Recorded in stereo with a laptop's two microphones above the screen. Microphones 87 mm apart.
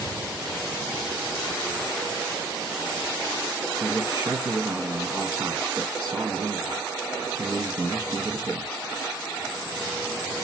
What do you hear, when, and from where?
3.8 s a man speaking: 35° right (ahead or behind), 1.2 m